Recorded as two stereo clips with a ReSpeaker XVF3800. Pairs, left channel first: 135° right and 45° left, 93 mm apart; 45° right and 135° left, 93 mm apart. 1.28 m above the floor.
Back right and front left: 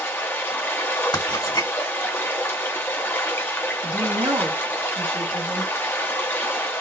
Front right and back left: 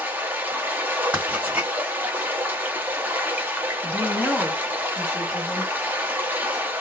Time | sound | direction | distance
0.0 | running water | straight behind | 0.8 m
1.1 | writing | 160° right | 1.7 m
3.8 | a woman speaking | 20° left | 2 m